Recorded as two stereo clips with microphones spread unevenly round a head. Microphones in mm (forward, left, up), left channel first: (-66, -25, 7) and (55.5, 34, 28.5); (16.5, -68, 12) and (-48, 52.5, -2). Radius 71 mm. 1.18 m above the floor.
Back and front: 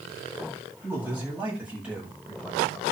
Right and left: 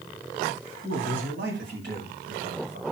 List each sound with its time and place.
0.8 s a man speaking: 100° left, 9 m; by 2.8 s 115° left, 6.5 m